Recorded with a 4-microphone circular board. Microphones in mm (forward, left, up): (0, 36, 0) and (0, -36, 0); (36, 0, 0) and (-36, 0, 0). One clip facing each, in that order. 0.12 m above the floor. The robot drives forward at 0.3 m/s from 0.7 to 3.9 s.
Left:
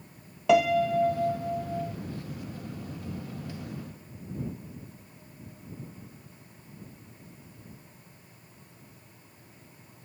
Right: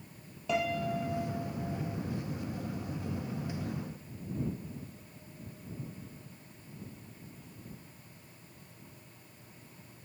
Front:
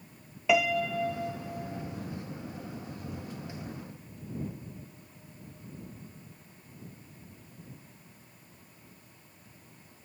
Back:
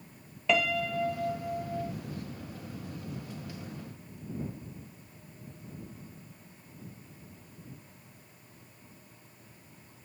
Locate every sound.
0.5 s a piano: 80° left, 0.6 m; by 1.9 s 120° left, 0.6 m